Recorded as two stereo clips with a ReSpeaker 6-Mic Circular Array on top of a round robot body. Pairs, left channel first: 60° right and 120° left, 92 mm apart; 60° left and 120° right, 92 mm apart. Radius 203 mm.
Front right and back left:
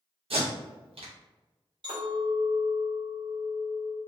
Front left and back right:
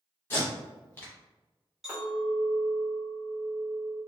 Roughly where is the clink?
Behind left.